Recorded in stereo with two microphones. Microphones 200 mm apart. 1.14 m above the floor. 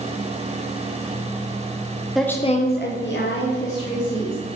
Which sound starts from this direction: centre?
A woman speaking, at 2.1 s.